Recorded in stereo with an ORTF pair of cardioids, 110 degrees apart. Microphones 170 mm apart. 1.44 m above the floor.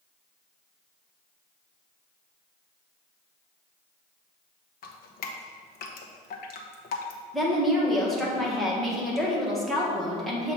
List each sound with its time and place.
4.8 s dripping: 65° left, 0.9 m
7.3 s a woman speaking: straight ahead, 1.7 m